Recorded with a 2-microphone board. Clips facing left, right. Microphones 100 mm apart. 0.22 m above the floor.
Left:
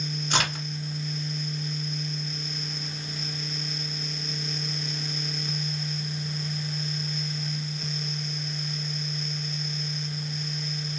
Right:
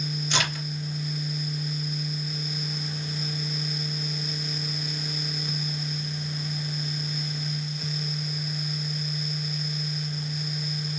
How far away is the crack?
About 1.8 m.